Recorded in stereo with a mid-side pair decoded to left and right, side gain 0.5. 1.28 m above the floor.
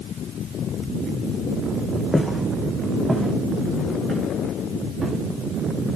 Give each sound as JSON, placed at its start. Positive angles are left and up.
{"t": 2.1, "sound": "footsteps", "azimuth_deg": -10, "distance_m": 4.0}